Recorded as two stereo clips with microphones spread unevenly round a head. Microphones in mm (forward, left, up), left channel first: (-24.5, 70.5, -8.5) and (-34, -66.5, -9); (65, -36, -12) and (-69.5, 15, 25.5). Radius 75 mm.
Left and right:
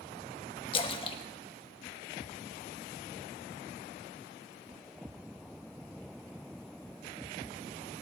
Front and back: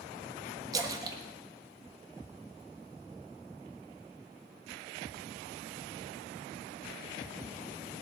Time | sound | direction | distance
0.7 | a splash | 120° left | 1.3 m